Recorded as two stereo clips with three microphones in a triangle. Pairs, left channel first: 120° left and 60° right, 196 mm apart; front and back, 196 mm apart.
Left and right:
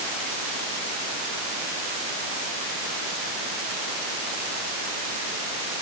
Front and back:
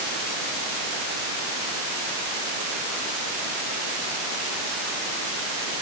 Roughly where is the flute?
I don't hear a flute.